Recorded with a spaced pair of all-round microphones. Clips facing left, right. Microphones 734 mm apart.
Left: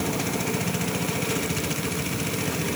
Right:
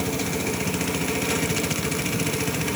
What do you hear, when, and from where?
Only background noise.